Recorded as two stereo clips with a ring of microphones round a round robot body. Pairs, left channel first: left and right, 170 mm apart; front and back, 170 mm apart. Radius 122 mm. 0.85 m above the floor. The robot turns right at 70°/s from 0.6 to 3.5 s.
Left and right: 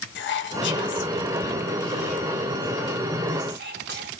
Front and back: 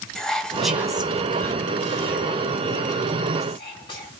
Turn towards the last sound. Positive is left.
turn(degrees=-70)